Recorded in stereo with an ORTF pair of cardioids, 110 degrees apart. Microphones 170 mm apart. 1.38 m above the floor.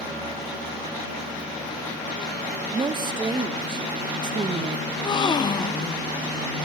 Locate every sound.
2.7 s a woman speaking: 30° right, 1.2 m
4.9 s a gasp: 25° left, 0.8 m